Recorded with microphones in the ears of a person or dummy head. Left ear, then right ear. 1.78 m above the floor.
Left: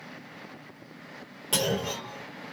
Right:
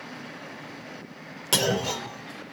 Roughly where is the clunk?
Right.